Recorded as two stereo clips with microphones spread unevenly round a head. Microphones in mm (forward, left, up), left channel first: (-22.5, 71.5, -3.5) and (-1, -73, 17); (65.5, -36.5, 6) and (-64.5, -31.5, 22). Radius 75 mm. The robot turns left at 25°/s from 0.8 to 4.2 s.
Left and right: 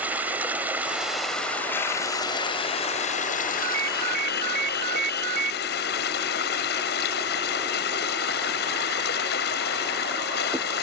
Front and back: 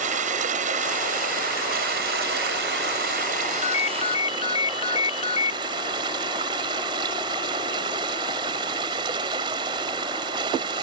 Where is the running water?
160° right; by 10.8 s 115° left.